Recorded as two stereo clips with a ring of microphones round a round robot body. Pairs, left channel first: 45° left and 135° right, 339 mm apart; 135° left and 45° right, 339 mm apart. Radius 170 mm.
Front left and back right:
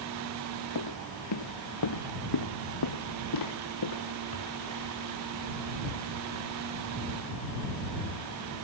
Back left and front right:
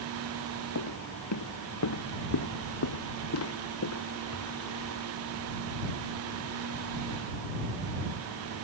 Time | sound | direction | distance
0.8 | footsteps | 85° left | ?